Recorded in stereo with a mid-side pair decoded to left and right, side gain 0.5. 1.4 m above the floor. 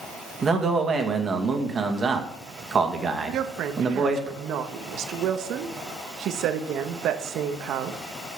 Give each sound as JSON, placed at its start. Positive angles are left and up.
{"t": 0.4, "sound": "a man speaking", "azimuth_deg": -35, "distance_m": 2.0}
{"t": 3.3, "sound": "a woman speaking", "azimuth_deg": -70, "distance_m": 1.2}